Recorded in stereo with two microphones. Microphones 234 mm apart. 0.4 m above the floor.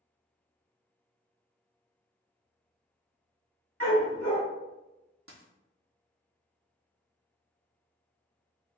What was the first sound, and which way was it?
A dog barking, 65° right (ahead or behind).